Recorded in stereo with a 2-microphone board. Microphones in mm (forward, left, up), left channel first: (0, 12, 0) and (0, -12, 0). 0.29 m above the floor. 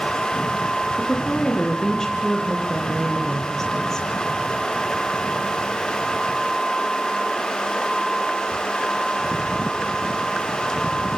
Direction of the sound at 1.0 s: 20° left (ahead or behind).